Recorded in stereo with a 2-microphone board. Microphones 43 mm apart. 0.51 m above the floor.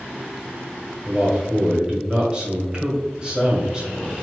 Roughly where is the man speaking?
Centre.